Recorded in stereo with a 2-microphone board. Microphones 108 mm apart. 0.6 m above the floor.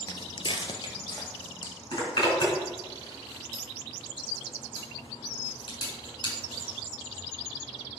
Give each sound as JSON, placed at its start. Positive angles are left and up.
{"t": 0.1, "sound": "footsteps", "side_deg": 35, "distance_m": 0.7}
{"t": 1.9, "sound": "a zipper", "side_deg": 45, "distance_m": 4.0}